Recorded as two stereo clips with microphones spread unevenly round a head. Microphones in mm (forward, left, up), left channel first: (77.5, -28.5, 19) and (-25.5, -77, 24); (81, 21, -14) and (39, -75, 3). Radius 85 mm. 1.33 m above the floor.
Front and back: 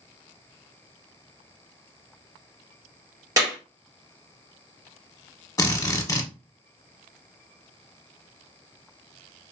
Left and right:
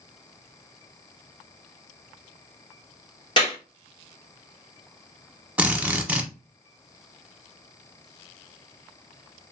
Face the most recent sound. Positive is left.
turn(degrees=-30)